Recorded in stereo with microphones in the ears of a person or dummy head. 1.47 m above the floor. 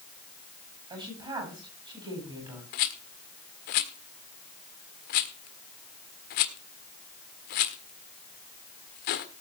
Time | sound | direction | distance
0.9 | a woman speaking | 25° right (ahead or behind) | 8 m
2.7 | a rattle | 50° left (ahead or behind) | 1.4 m